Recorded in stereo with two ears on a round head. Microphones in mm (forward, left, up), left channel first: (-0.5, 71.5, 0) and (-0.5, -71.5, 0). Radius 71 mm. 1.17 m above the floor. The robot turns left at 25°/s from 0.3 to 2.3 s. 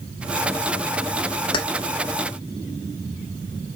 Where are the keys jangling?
30° left (ahead or behind), 1.2 m; by 1.6 s 25° left (ahead or behind), 1.2 m.